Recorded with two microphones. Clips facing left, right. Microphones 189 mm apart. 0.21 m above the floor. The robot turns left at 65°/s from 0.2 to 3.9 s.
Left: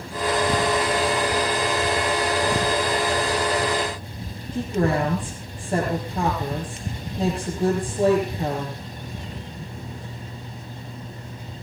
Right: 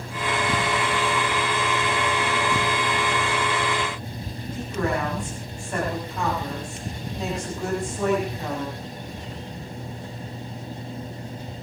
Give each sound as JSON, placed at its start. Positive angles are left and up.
{"t": 4.5, "sound": "a woman speaking", "side_deg": 30, "distance_m": 7.5}